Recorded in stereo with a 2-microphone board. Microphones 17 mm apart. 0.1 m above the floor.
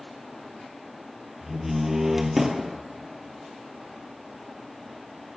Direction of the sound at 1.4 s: 20° right (ahead or behind).